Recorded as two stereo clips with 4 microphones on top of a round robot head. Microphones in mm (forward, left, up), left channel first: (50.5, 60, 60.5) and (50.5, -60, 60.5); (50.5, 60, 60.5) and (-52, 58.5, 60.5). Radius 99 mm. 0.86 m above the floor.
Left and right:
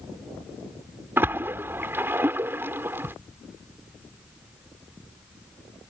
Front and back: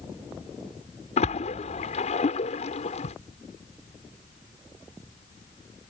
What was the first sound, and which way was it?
A splash, 20° right.